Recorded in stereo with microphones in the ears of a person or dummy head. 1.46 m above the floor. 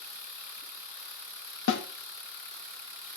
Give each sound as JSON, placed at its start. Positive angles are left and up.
{"t": 1.7, "sound": "a snare drum", "side_deg": 75, "distance_m": 0.9}